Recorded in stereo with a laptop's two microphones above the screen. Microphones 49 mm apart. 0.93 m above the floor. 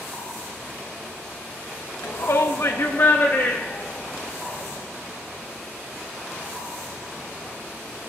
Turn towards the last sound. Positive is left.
turn(degrees=35)  # may be behind; listen again after turning